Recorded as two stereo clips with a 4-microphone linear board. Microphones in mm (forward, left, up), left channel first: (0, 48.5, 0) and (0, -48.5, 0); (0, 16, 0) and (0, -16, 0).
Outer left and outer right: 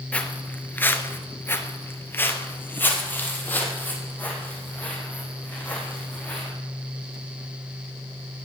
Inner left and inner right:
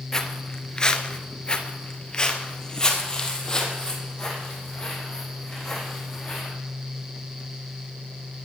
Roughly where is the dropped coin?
No dropped coin in this recording.